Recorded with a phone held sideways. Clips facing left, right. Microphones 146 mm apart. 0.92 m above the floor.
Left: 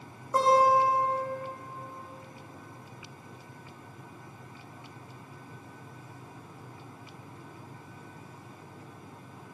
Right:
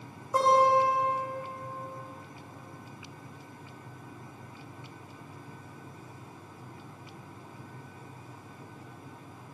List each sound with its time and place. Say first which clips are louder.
0.3 s a guitar: even; centre (ahead or behind), 4 m